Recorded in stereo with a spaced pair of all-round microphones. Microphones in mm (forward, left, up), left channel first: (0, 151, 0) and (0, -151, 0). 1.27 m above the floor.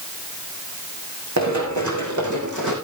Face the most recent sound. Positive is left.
turn(degrees=-75)  # may be behind; listen again after turning